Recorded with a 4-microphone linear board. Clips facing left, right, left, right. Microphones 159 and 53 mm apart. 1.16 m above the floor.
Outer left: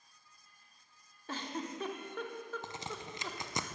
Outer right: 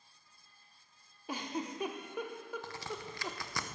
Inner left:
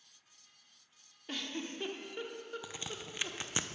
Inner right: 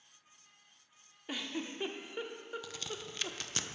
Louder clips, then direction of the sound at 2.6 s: Outer right 1 dB, even; 20° left (ahead or behind).